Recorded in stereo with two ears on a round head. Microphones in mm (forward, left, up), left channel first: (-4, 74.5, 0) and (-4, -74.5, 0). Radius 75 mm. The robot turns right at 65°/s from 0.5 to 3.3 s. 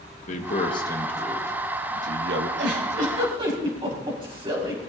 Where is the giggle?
75° right (ahead or behind), 5 m; by 4.8 s 30° right (ahead or behind), 5 m.